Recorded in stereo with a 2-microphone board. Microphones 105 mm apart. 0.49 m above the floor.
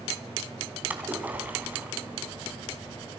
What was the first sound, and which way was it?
A splash, 15° right (ahead or behind).